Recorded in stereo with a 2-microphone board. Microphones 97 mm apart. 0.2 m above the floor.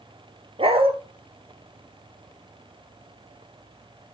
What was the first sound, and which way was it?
A dog barking, 70° right (ahead or behind).